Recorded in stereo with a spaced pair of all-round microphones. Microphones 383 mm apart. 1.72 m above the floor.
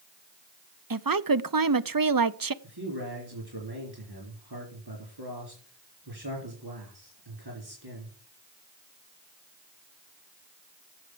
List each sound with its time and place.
0.9 s a woman speaking: 60° right (ahead or behind), 0.6 m
2.6 s a man speaking: 85° right, 4 m